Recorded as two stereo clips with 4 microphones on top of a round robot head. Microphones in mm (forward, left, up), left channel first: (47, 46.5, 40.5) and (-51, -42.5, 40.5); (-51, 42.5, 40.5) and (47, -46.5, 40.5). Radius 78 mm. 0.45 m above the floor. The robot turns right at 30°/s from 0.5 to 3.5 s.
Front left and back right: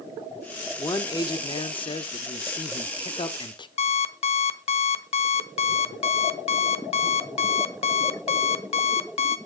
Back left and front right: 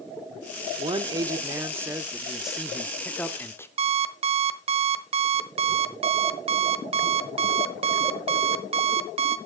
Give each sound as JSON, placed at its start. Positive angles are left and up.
{"t": 0.8, "sound": "a man speaking", "azimuth_deg": -10, "distance_m": 1.1}
{"t": 3.8, "sound": "an alarm clock", "azimuth_deg": 0, "distance_m": 1.0}